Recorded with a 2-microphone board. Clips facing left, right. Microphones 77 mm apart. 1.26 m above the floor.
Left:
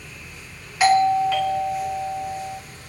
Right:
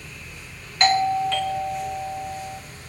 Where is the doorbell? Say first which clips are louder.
Left 3 dB; 5° left (ahead or behind), 0.6 m.